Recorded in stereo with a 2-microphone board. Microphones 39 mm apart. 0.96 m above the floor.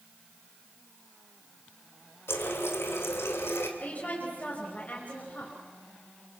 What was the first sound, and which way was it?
A running tap, 80° left.